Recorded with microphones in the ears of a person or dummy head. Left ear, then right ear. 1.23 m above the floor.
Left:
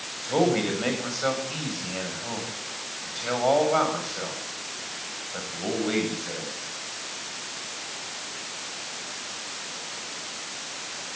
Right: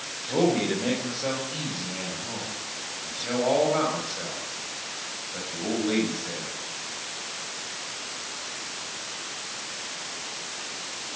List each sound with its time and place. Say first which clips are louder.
0.2 s a man speaking: left 1 dB; 50° left (ahead or behind), 8 m; by 6.5 s 25° left (ahead or behind), 8.5 m